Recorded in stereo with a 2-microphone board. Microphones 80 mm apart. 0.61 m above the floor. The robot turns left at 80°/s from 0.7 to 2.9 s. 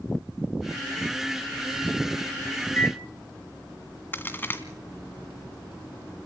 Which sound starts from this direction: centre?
A microwave, at 2.6 s.